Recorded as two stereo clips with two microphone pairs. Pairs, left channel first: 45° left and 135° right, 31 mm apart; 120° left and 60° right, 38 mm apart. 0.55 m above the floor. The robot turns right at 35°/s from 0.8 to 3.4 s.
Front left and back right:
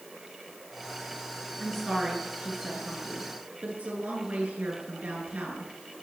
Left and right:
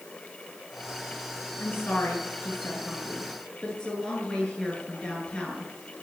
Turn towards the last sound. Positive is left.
turn(degrees=-170)